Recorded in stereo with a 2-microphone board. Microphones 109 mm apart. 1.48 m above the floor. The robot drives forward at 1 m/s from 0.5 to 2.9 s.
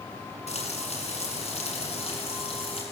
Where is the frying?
80° left, 8 m; by 2.8 s 65° left (ahead or behind), 8.5 m.